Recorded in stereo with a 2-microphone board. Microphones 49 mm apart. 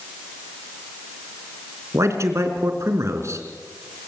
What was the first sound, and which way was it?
A man speaking, 70° right (ahead or behind).